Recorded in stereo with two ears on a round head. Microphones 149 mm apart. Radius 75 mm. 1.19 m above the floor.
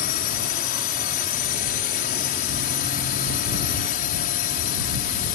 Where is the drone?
55° left (ahead or behind).